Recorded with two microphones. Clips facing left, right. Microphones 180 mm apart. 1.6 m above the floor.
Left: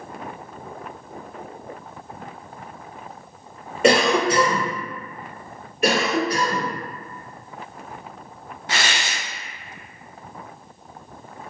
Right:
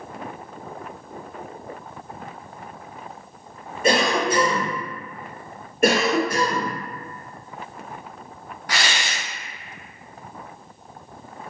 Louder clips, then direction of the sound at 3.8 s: Left 3 dB; 75° left (ahead or behind).